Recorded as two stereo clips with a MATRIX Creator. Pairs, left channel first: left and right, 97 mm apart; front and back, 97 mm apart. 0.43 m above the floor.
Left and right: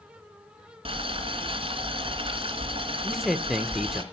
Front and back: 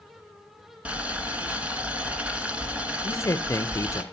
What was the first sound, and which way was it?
Boiling, 105° right.